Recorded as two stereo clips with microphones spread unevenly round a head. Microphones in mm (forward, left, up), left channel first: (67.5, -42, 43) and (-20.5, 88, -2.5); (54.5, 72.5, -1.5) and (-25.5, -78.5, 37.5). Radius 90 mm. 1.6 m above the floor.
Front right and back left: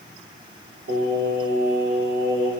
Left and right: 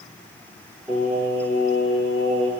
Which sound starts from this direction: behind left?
Singing, at 0.9 s.